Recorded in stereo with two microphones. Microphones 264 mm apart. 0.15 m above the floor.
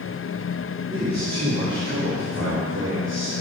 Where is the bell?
I don't hear a bell.